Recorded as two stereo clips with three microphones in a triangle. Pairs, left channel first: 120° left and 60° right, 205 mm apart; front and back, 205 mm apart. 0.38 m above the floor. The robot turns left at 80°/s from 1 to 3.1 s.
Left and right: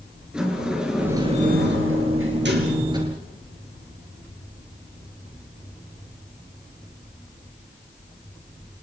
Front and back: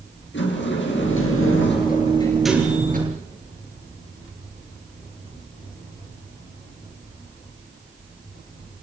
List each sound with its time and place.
0.3 s a sliding door: 25° left, 4.5 m; by 3.0 s 135° right, 4.5 m